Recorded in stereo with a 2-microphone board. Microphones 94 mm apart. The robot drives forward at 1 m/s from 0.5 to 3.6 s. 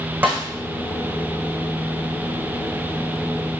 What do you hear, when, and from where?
0.2 s a snare drum: 20° right (ahead or behind), 5 m